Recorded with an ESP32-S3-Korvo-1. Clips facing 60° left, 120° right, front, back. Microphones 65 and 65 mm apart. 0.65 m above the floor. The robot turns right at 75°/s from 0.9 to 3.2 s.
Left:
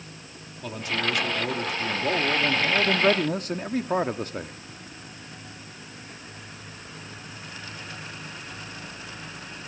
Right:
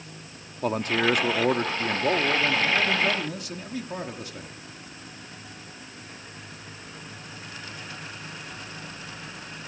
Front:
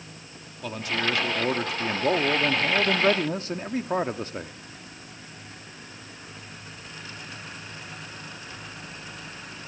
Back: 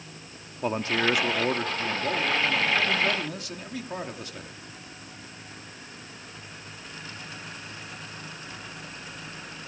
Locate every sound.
0.6 s a man speaking: 135° right, 1.1 m; by 4.5 s 40° left, 1.1 m